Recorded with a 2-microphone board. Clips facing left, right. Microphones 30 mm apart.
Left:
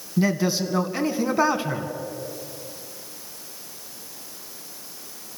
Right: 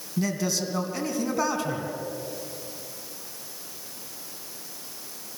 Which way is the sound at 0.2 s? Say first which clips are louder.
Left 5 dB; 25° left (ahead or behind).